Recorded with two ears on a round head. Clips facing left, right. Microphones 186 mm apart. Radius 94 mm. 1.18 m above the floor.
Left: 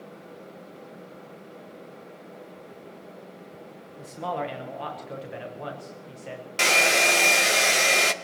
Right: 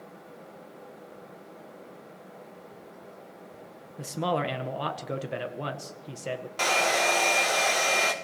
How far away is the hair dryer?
About 0.5 m.